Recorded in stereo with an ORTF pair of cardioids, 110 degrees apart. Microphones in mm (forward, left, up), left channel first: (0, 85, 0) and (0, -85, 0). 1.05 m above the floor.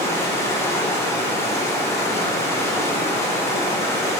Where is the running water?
15° left, 0.9 m.